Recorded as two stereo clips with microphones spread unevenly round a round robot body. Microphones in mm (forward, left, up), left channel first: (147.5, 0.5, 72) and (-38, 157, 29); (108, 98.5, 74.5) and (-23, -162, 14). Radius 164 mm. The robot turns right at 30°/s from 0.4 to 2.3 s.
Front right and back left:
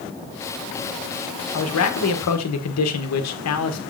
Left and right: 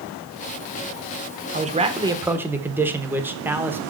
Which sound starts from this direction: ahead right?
A man speaking, at 1.5 s.